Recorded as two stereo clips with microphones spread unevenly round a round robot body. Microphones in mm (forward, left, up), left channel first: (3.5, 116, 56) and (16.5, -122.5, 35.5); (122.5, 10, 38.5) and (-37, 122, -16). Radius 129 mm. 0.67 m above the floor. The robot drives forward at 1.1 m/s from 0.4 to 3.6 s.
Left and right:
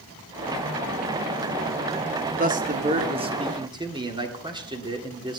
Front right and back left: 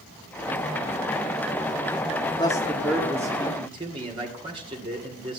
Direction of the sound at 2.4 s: 115° right.